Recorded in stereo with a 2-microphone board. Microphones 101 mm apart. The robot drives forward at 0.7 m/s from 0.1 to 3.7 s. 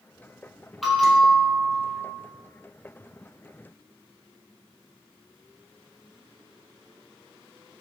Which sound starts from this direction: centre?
A bell, at 0.8 s.